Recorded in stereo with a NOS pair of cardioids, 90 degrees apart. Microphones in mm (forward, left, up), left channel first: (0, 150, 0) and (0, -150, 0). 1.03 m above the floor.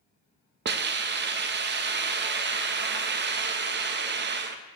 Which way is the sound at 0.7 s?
35° right.